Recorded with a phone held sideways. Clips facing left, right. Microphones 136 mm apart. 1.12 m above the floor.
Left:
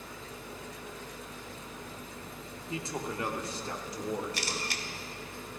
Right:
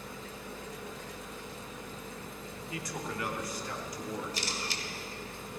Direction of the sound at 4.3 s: 75° left (ahead or behind).